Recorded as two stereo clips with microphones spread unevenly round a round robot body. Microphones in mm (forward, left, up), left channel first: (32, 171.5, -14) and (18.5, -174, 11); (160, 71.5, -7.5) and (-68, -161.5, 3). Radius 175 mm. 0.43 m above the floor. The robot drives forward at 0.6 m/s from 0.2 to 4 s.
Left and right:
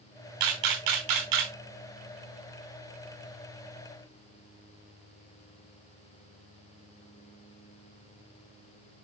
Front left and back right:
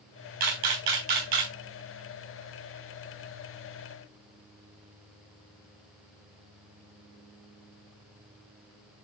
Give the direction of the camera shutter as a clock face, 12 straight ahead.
4 o'clock.